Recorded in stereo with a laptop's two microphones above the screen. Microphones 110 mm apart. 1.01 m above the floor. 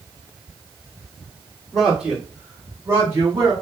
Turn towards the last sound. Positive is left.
turn(degrees=-40)  # may be behind; listen again after turning